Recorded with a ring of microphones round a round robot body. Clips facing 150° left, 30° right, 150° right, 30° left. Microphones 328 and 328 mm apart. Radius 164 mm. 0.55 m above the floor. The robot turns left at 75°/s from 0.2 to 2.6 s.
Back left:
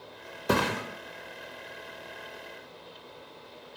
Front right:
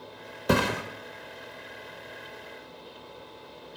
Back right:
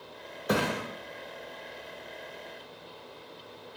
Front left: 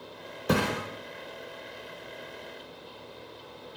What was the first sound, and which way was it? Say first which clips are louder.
A thud: front right 2 dB, front left 2 dB; 25° right.